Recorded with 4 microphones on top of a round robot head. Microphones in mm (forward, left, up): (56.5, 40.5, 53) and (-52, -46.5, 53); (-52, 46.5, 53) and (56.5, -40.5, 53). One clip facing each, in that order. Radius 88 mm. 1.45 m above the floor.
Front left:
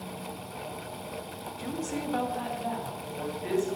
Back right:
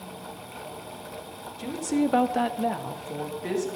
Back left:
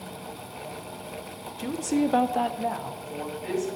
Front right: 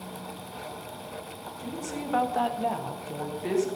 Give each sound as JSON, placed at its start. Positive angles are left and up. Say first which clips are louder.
{"t": 1.6, "sound": "a woman speaking", "louder": "back right 9 dB, back left 11 dB", "azimuth_deg": 145, "distance_m": 1.1}